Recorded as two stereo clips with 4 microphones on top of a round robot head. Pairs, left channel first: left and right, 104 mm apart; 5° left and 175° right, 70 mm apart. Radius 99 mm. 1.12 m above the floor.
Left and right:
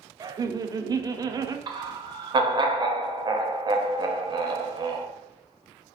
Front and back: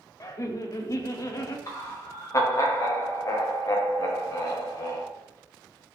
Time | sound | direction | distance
0.2 | laughter | 35° right | 0.5 m
1.7 | laughter | 40° right | 0.7 m